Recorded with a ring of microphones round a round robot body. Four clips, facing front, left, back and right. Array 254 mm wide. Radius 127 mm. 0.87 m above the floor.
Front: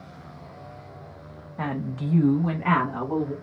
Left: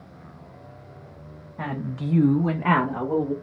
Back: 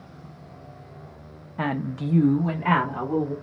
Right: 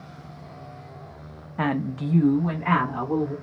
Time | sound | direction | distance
1.6 | a woman speaking | 110° right | 0.6 m